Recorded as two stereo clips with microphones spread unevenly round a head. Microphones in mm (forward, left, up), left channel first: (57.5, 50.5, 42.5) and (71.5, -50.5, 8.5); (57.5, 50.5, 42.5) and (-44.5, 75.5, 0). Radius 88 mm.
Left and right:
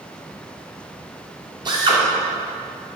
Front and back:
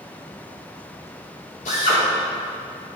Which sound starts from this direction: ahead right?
A drill, at 1.6 s.